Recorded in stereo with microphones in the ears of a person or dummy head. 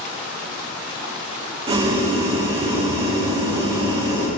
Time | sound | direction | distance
1.7 | boiling | 35° right (ahead or behind) | 1.1 m